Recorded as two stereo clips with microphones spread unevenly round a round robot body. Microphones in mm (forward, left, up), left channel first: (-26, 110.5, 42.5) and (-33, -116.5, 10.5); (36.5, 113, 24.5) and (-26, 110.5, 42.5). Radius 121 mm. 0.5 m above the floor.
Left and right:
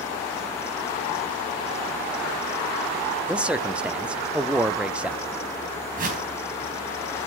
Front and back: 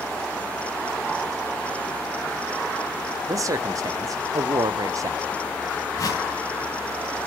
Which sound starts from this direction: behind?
A man speaking, at 3.3 s.